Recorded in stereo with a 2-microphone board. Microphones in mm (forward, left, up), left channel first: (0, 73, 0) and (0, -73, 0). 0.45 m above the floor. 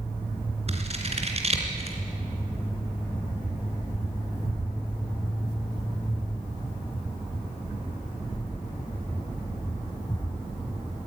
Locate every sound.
0.7 s scissors: 45° right (ahead or behind), 3 m